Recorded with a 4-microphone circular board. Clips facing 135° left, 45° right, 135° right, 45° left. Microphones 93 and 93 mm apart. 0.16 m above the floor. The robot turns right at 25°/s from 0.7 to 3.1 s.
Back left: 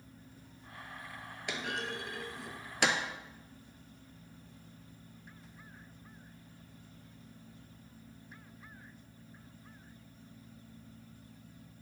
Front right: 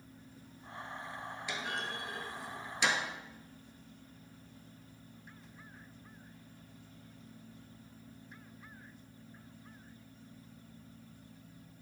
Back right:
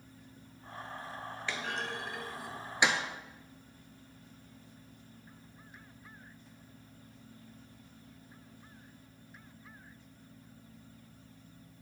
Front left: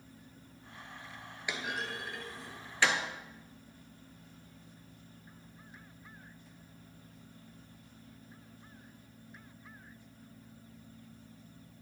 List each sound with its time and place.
1.5 s a clunk: 120° left, 1.1 m; by 3.0 s 155° left, 1.1 m